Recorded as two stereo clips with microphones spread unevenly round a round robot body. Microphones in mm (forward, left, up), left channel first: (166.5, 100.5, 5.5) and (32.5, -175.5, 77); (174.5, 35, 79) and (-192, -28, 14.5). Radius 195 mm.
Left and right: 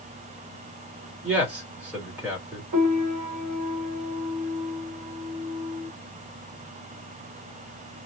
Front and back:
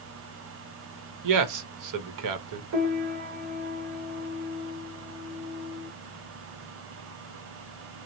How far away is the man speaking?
About 1.0 m.